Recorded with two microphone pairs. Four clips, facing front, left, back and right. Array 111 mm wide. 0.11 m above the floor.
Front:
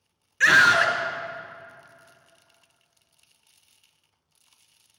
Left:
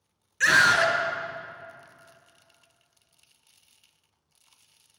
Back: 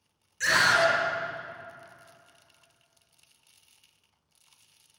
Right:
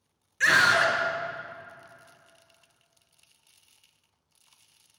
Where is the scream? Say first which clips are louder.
Left 1 dB, front 5 dB; 5° left, 1.7 m.